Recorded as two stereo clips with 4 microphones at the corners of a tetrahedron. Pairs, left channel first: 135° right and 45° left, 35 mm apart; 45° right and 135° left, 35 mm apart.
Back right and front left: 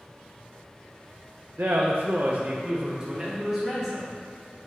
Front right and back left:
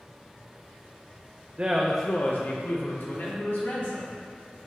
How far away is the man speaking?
About 0.6 m.